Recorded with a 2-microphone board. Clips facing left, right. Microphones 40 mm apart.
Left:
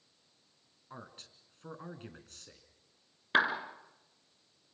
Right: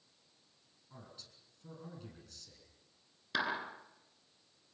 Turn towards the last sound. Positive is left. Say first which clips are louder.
# left 7 dB
turn(degrees=40)  # may be behind; listen again after turning